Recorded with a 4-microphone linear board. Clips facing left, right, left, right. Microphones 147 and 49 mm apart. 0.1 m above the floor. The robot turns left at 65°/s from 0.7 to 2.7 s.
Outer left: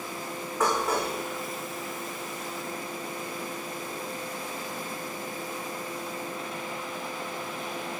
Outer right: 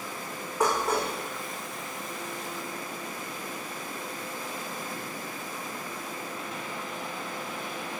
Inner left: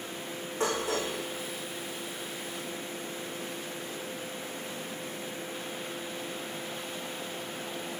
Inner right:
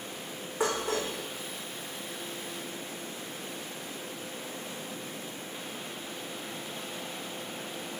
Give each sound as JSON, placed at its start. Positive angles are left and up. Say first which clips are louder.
{"t": 0.6, "sound": "dishes clattering", "louder": "even, even", "side_deg": -10, "distance_m": 4.5}